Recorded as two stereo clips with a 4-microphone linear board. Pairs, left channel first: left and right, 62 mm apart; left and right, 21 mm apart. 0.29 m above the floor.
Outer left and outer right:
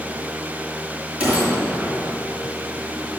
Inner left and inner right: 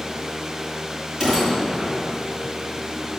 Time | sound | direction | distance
1.2 | a gunshot | 25° right (ahead or behind) | 5.5 m